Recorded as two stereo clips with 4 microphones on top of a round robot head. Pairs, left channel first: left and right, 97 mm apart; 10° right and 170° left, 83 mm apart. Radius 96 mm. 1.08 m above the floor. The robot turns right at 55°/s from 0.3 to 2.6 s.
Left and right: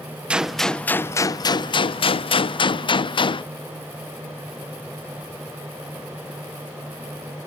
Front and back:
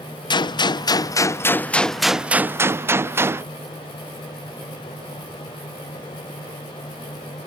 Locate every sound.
0.3 s a gunshot: 15° right; by 3.5 s 115° left